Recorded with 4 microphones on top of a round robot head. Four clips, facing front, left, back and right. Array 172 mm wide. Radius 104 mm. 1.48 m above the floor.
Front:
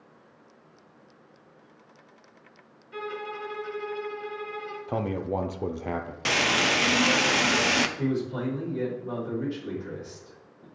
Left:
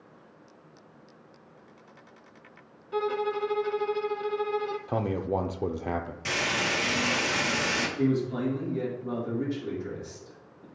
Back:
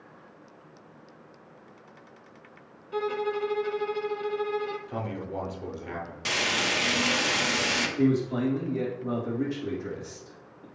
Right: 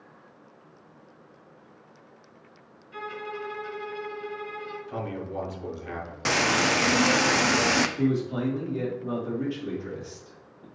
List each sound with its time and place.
2.9 s a violin: 125° left, 0.5 m
4.9 s a man speaking: 50° left, 0.6 m
6.2 s frying: 70° right, 0.6 m
8.0 s a man speaking: 150° right, 2.5 m